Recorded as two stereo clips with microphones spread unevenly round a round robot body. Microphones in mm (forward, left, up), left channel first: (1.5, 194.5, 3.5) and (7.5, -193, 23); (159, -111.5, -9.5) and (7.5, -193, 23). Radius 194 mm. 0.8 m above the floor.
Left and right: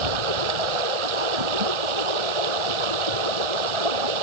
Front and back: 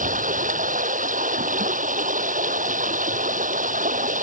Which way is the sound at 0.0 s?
110° right.